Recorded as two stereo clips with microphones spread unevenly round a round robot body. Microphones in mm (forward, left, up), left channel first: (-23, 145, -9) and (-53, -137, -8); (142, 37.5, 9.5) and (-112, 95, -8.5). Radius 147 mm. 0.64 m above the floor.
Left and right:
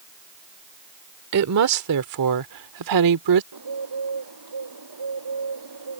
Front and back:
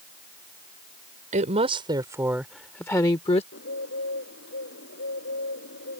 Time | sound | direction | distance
1.3 | a woman speaking | 130° right | ?
3.5 | a bird | 70° right | ?